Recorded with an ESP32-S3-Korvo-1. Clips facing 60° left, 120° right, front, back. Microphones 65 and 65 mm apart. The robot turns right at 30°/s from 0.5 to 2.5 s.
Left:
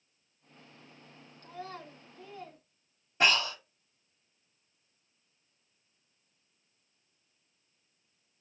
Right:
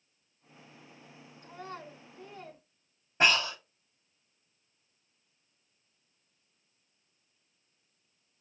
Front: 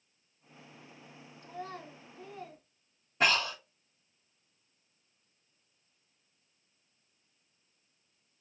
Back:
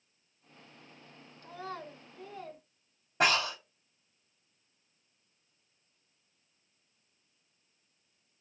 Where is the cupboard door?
No cupboard door in this recording.